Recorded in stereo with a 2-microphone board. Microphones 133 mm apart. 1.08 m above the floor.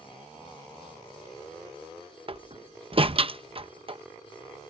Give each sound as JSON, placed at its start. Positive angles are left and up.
{"t": 2.3, "sound": "a door slam", "side_deg": -45}